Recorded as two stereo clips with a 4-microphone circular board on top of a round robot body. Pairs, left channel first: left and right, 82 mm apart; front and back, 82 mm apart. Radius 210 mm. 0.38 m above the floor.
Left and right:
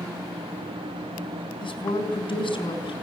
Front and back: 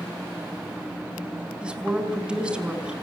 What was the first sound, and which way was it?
A woman speaking, 100° left.